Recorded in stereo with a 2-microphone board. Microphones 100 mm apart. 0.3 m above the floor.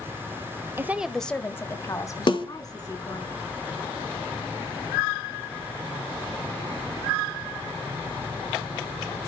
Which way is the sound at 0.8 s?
25° right (ahead or behind).